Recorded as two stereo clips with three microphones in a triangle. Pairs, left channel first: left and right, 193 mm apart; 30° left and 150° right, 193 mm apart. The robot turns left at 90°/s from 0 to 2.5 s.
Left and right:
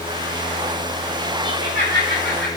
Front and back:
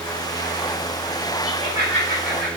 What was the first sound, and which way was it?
Laughter, 165° left.